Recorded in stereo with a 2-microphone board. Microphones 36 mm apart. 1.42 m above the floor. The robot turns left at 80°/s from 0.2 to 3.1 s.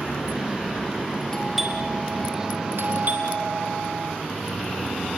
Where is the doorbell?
15° left, 4.5 m; by 4.1 s 125° right, 4.5 m.